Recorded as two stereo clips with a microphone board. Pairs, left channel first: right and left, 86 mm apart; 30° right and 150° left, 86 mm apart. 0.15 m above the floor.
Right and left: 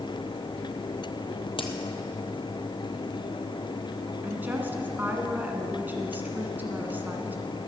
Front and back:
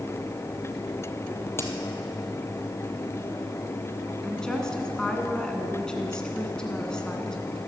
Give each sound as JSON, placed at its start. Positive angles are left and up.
{"t": 1.6, "sound": "a crack", "azimuth_deg": -90, "distance_m": 1.4}
{"t": 4.2, "sound": "a woman speaking", "azimuth_deg": 45, "distance_m": 1.8}